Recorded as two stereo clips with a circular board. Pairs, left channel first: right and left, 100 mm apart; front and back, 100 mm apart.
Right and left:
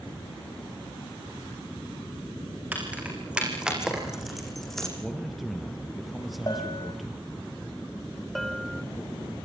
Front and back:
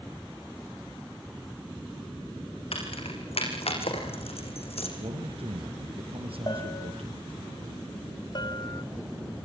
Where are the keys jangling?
15° left, 7.5 m; by 4.9 s 5° right, 5.5 m.